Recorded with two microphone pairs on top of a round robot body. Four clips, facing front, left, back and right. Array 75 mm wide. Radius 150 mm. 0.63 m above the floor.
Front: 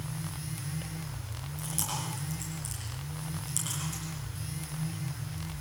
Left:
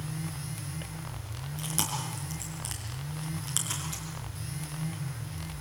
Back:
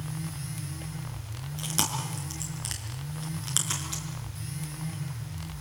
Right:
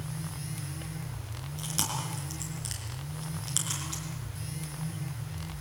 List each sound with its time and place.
1.6 s chewing: 170° left, 5 m